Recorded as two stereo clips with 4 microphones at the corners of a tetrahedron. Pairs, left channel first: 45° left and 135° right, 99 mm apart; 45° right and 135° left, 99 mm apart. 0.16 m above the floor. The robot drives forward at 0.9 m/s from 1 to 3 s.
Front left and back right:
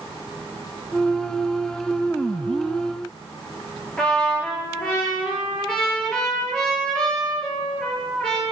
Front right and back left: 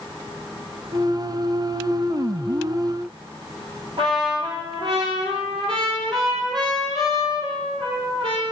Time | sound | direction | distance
4.0 | a trumpet | 125° left | 3 m